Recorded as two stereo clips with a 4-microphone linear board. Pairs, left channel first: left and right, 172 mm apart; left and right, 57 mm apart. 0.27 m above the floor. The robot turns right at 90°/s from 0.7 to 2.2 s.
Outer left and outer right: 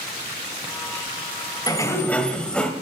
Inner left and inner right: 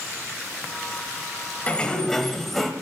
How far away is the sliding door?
About 1.2 m.